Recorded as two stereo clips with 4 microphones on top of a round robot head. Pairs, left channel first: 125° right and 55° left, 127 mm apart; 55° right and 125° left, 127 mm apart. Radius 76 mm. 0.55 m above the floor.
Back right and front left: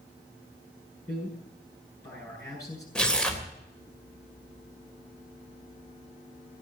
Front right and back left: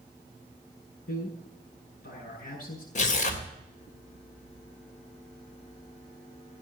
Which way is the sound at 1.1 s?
55° right.